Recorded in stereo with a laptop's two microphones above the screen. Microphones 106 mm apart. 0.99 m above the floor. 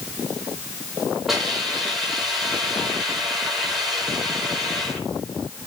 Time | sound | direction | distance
1.3 | a hiss | centre (ahead or behind) | 4.5 m